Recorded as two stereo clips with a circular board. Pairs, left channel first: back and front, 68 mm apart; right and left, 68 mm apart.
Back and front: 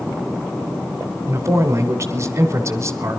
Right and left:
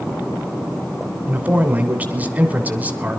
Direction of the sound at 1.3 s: 30° left.